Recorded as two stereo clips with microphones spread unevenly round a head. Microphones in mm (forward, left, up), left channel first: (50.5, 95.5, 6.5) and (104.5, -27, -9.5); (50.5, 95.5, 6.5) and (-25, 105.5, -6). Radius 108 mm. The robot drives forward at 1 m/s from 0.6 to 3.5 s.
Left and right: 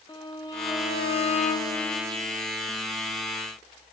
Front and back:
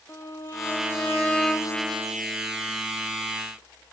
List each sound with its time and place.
0.1 s a violin: 50° left, 2.0 m; by 1.8 s 90° left, 1.5 m